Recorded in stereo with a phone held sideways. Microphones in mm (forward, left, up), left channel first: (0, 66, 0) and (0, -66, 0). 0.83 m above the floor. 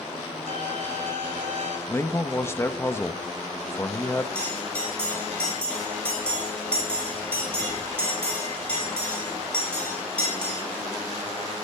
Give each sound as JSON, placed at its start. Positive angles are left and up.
{"t": 0.5, "sound": "a violin", "side_deg": -75, "distance_m": 2.5}
{"t": 1.9, "sound": "a man speaking", "side_deg": 20, "distance_m": 0.8}
{"t": 4.3, "sound": "a bell", "side_deg": 10, "distance_m": 6.0}